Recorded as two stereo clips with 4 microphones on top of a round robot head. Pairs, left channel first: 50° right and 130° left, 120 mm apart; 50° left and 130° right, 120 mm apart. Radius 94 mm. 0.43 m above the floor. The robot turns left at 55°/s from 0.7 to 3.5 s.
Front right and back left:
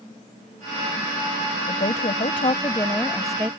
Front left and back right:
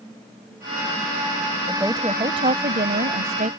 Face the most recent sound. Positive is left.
turn(degrees=-150)